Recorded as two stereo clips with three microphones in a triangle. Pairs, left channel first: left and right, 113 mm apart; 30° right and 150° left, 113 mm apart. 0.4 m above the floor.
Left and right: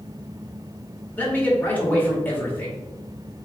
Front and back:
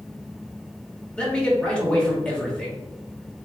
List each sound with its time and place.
1.2 s a man speaking: 40° left, 1.0 m